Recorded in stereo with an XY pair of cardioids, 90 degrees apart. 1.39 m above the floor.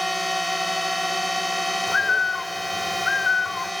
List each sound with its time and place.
0.0 s a drone: straight ahead
1.9 s a bird: 35° left